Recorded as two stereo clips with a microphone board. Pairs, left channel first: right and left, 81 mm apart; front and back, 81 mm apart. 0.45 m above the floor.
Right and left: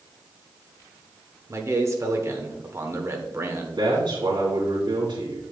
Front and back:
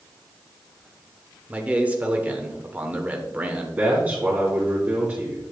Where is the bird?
I don't hear a bird.